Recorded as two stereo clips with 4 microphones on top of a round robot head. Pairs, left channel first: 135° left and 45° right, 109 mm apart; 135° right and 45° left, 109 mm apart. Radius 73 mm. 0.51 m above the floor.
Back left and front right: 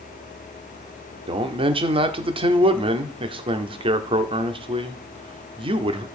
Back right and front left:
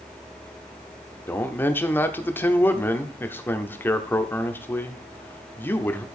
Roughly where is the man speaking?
Ahead right.